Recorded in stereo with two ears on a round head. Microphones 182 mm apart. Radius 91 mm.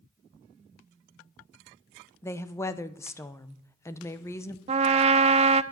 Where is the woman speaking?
15° left (ahead or behind), 0.8 m.